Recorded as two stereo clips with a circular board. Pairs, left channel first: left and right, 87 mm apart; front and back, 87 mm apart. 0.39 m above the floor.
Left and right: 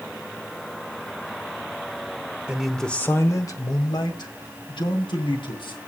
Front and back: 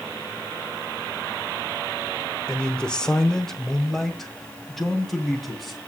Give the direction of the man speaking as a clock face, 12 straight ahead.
2 o'clock.